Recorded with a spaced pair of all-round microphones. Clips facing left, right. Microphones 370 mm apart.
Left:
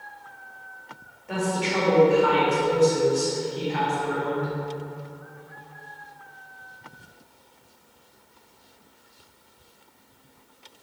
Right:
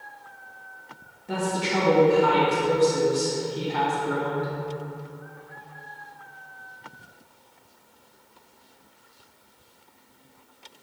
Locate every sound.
1.3 s a woman speaking: 55° right (ahead or behind), 2 m